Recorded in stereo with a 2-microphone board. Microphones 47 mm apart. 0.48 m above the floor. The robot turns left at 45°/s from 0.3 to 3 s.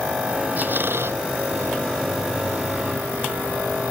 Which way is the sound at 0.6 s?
35° right (ahead or behind).